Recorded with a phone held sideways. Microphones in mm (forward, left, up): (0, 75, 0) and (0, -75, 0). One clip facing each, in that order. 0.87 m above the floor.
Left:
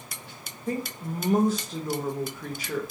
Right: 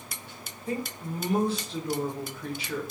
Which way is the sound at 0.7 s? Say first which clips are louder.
Left 2 dB; 45° left (ahead or behind).